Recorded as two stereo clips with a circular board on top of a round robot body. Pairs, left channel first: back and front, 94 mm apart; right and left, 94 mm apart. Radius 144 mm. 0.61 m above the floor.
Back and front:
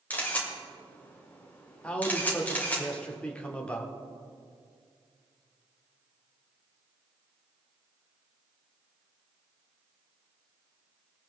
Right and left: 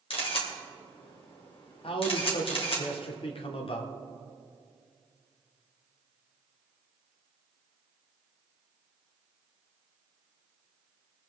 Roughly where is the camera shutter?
Right.